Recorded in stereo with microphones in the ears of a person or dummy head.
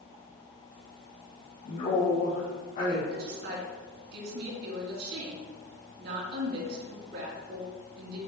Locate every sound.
1.6 s a man speaking: 50° left (ahead or behind), 2.5 m
3.1 s a woman speaking: 65° right (ahead or behind), 2.5 m